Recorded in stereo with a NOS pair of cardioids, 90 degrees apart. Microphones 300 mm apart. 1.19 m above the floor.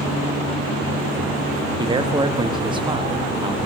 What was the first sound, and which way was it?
A man speaking, 15° right.